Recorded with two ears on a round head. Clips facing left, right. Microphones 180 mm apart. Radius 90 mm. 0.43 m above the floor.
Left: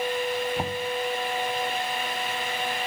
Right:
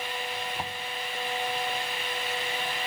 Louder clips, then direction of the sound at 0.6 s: Left 8 dB; 25° left (ahead or behind).